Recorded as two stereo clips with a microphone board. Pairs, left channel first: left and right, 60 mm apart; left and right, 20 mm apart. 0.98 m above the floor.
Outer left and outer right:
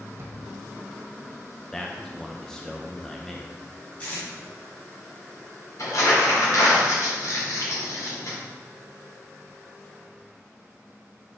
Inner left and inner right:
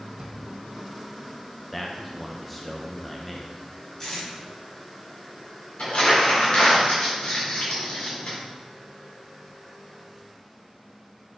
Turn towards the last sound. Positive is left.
turn(degrees=70)  # may be behind; listen again after turning